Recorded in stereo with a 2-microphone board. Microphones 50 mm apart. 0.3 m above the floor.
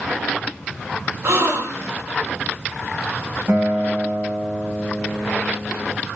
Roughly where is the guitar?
Right.